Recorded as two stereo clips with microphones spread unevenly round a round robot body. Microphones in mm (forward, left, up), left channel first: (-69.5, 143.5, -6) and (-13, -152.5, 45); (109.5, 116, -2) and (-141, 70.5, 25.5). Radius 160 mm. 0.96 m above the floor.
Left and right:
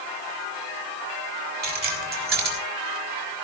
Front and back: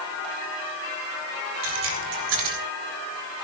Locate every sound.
1.6 s keys jangling: 140° right, 3.5 m